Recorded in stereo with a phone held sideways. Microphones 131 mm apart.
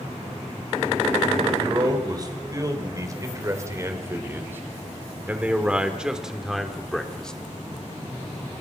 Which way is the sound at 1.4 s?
35° right (ahead or behind).